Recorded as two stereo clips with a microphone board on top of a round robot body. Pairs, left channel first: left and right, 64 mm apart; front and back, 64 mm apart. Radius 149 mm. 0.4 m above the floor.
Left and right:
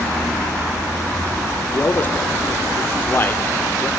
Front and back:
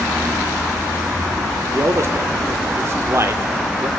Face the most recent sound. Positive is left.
turn(degrees=140)